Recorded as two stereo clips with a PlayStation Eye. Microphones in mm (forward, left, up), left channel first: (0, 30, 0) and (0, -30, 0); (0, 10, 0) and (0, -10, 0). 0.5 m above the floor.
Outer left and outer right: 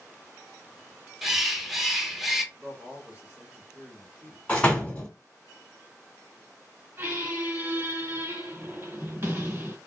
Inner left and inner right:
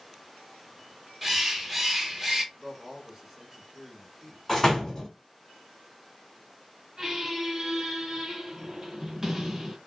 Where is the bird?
5° right (ahead or behind), 0.7 m.